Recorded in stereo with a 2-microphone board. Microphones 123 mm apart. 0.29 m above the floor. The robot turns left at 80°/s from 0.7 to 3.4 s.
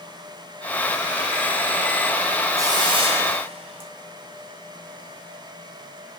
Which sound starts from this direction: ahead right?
A hiss, at 2.6 s.